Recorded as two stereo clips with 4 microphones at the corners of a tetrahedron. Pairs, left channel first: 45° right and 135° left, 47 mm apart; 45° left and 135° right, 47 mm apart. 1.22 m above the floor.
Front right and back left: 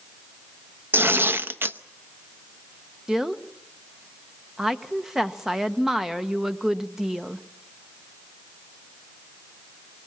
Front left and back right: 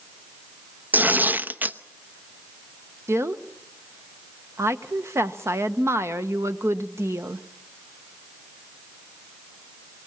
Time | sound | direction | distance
0.9 | tearing paper | 175° left | 0.8 m
3.1 | a woman speaking | 140° right | 1.0 m